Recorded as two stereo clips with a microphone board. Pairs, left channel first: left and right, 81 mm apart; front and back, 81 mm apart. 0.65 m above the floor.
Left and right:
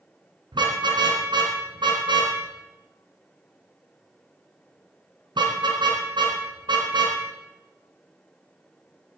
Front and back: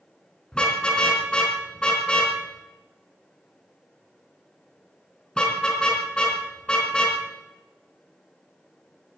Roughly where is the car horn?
Right.